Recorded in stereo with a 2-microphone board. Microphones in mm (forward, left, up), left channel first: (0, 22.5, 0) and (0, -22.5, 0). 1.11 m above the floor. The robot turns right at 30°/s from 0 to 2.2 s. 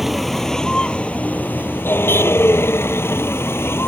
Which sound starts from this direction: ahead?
A vehicle, at 0.0 s.